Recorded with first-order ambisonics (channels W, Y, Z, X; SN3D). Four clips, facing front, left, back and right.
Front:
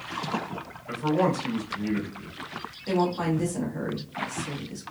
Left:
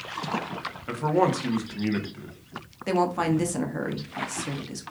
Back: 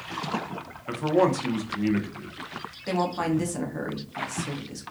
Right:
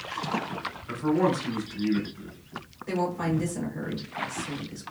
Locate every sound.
0.9 s a man speaking: 130° left, 1.0 m
2.9 s a woman speaking: 105° left, 0.8 m